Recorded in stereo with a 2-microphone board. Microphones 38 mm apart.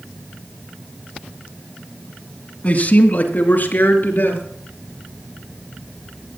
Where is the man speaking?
40° left (ahead or behind), 2.0 m; by 4.4 s 65° left (ahead or behind), 4 m.